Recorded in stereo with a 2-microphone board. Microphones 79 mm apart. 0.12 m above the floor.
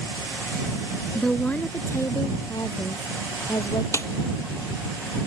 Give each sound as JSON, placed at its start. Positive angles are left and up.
{"t": 1.1, "sound": "a woman speaking", "side_deg": 5}
{"t": 3.9, "sound": "a snare drum", "side_deg": 35}